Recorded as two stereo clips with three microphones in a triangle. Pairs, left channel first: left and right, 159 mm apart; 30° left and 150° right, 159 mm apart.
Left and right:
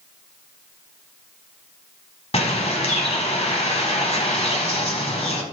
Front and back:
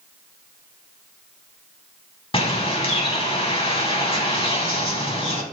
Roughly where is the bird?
Ahead left.